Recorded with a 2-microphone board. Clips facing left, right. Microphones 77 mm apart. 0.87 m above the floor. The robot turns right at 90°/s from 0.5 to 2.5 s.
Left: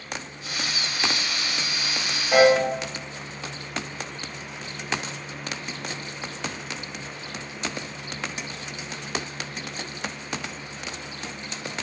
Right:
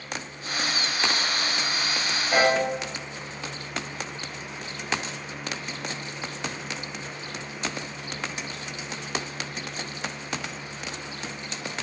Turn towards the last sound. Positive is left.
turn(degrees=10)  # may be behind; listen again after turning